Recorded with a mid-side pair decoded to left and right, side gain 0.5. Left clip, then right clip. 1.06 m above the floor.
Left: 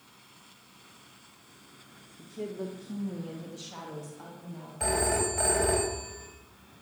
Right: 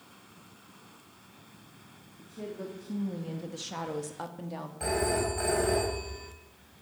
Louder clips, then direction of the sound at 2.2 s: Left 3 dB; 20° left.